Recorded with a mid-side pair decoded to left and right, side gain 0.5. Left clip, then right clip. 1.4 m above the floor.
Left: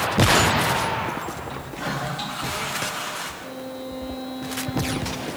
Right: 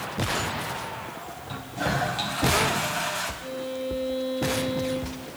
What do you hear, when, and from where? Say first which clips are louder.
1.5 s a toilet flushing: right 1 dB; 55° right, 6 m
3.4 s a violin: right 3 dB; 45° right, 7 m